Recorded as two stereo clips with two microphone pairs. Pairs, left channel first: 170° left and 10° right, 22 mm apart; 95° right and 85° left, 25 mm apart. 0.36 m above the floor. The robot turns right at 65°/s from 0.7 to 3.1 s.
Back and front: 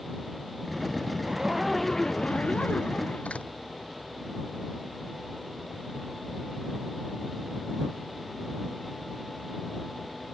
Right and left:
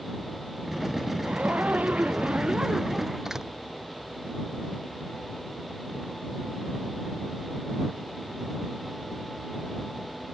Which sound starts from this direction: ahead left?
A zipper, at 1.2 s.